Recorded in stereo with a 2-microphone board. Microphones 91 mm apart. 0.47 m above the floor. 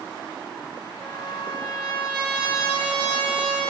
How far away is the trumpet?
About 2.0 m.